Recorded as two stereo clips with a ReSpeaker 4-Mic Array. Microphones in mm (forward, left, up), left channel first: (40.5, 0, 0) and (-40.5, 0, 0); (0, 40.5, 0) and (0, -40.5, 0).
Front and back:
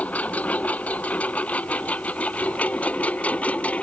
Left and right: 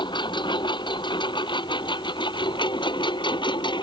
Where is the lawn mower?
70° left.